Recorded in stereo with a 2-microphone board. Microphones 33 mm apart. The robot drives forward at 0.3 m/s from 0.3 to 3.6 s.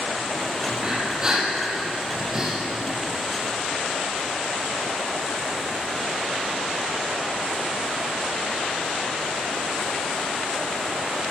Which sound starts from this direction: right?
Breathing, at 0.7 s.